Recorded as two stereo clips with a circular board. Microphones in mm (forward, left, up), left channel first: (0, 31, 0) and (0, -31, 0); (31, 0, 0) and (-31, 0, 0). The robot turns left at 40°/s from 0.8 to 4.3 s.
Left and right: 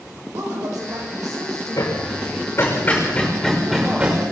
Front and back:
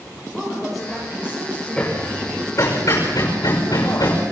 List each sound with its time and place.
0.3 s a woman speaking: 90° right, 9.5 m; by 1.9 s 135° right, 9.5 m
1.8 s hammering: 75° left, 6 m; by 4.2 s 25° right, 6 m